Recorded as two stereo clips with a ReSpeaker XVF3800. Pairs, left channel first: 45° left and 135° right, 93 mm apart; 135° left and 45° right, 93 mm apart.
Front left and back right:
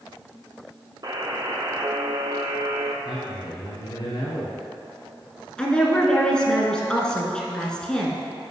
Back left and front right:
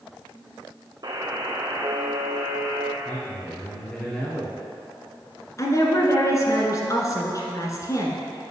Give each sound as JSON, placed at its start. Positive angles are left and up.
{"t": 1.0, "sound": "a buzzer", "azimuth_deg": -85, "distance_m": 0.8}
{"t": 3.0, "sound": "a man speaking", "azimuth_deg": 55, "distance_m": 2.5}
{"t": 5.6, "sound": "a woman speaking", "azimuth_deg": 120, "distance_m": 1.3}